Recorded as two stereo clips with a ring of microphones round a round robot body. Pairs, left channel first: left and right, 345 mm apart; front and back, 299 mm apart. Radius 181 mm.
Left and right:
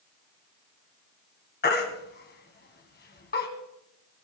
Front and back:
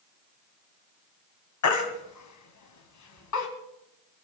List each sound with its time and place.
1.6 s a baby crying: 25° left, 1.9 m